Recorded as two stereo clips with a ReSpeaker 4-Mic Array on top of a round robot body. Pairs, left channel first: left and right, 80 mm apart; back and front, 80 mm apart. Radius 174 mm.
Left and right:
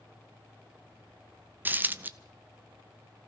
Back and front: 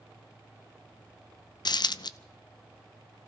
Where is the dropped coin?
155° right, 0.5 m.